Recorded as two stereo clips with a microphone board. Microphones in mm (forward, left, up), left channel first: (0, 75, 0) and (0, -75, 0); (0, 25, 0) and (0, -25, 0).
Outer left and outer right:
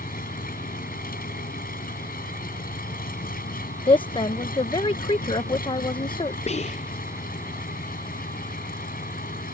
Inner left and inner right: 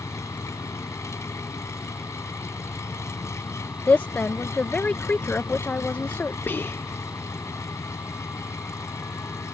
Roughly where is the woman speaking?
Left.